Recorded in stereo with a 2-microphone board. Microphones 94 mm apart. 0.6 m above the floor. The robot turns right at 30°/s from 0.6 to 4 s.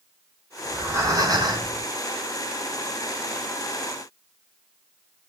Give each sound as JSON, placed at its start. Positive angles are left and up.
{"t": 0.7, "sound": "breathing", "azimuth_deg": -155, "distance_m": 6.0}